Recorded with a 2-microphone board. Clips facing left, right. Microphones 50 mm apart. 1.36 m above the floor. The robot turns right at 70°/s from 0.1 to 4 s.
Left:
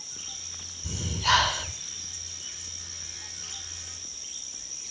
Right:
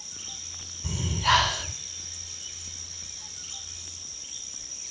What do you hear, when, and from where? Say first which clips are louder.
0.8 s breathing: right 1 dB; 40° right, 8 m; by 1.7 s 25° left, 8 m